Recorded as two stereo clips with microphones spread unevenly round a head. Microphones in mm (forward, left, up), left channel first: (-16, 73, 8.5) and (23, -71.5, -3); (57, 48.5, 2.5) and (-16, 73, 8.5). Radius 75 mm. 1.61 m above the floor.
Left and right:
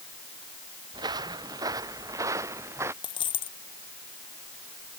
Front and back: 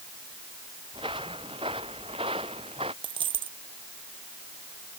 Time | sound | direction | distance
0.9 | footsteps | 140° right | ?
3.0 | a dropped coin | 165° left | ?